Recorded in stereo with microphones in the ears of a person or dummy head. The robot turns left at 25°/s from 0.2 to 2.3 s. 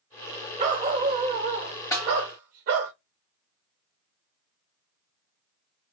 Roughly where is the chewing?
No chewing in this recording.